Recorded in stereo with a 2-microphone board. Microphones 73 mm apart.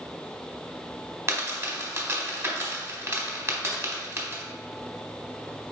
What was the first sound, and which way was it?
A dropped coin, 35° right (ahead or behind).